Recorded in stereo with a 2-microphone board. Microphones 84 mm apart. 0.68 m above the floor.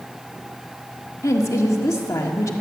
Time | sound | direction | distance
1.2 | a woman speaking | 40° left (ahead or behind) | 1.6 m